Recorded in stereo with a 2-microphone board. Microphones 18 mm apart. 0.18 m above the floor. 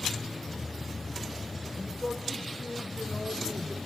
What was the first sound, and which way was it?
A man speaking, 40° left (ahead or behind).